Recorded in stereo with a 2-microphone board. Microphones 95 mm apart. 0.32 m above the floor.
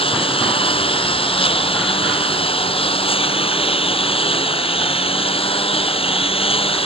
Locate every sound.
0.0 s a lawn mower: 70° left (ahead or behind); by 6.9 s 75° left (ahead or behind)